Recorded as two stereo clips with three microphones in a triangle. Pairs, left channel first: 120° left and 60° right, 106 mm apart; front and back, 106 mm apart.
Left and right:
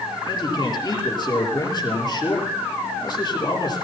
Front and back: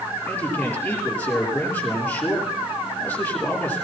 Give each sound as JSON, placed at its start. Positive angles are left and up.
{"t": 0.3, "sound": "a man speaking", "azimuth_deg": 75, "distance_m": 6.5}